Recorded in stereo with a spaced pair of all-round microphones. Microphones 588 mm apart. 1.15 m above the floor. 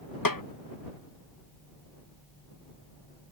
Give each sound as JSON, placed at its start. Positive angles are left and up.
{"t": 0.2, "sound": "a snare drum", "side_deg": 35}